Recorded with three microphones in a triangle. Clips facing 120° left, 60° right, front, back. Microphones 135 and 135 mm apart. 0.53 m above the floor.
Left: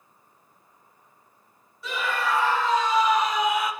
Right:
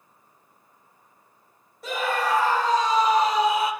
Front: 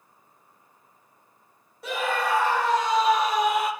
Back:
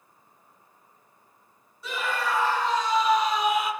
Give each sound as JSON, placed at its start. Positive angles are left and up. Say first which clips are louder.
{"t": 1.8, "sound": "a scream", "louder": "right 2 dB, front 3 dB", "azimuth_deg": -20, "distance_m": 4.0}